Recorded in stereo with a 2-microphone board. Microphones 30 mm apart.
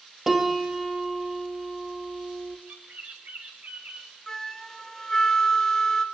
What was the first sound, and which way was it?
A piano, 10° right (ahead or behind).